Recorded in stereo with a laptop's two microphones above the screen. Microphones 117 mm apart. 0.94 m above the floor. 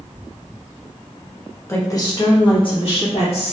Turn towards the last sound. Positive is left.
turn(degrees=60)  # may be behind; listen again after turning